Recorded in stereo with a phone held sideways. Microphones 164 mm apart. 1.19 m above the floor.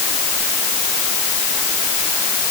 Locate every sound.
Only background noise.